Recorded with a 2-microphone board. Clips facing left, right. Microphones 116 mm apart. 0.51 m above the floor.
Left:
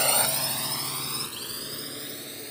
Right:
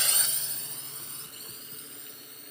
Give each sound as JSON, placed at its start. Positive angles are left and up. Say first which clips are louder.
{"t": 0.0, "sound": "a drone", "louder": "left 13 dB", "side_deg": 50}